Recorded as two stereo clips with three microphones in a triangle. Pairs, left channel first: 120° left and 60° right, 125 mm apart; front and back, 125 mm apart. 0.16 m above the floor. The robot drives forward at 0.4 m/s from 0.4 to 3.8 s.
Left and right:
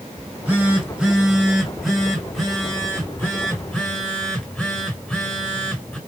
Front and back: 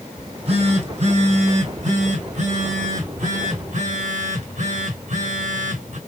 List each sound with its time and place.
0.2 s a phone buzzing: 140° right, 1.4 m; by 6.0 s 160° right, 2.5 m